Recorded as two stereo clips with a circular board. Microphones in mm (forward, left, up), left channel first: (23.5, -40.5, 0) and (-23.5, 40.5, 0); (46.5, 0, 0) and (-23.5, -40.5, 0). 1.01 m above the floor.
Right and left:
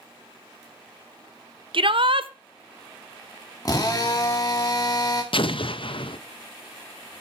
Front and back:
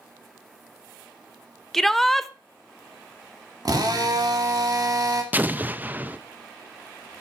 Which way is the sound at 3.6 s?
110° right.